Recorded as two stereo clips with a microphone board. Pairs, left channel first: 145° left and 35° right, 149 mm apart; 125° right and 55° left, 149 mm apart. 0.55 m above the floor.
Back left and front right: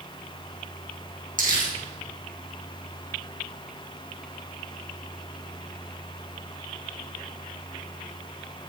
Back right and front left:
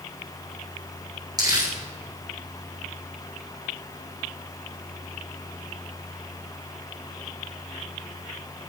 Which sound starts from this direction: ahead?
Crumpling, at 1.4 s.